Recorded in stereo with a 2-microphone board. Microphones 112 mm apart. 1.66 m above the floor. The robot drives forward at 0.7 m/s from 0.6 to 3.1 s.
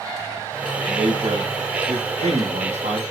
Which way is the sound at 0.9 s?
60° right (ahead or behind).